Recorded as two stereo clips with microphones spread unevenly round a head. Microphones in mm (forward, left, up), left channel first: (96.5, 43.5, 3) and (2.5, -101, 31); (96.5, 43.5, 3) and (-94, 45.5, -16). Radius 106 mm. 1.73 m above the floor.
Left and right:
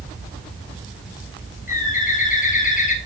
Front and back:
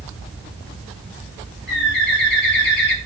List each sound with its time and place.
1.7 s a bird: 15° left, 3 m